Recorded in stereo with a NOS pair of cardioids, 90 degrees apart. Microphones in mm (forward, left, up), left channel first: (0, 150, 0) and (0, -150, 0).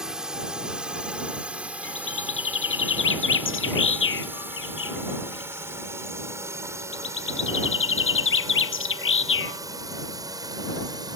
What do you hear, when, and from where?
0.0 s a drone: straight ahead; by 11.2 s 15° right
1.8 s a bird: 40° left